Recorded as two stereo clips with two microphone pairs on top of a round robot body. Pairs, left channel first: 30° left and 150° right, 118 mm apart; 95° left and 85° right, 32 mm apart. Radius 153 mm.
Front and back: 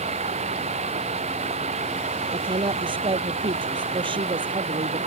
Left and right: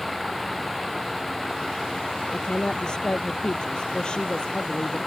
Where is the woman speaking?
165° left.